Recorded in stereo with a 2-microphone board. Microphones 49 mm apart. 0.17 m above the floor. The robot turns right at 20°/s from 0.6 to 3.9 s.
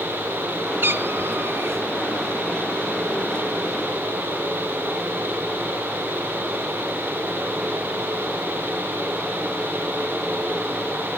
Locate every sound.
0.8 s a cat meowing: 50° right (ahead or behind), 0.8 m; by 1.8 s 65° right (ahead or behind), 0.8 m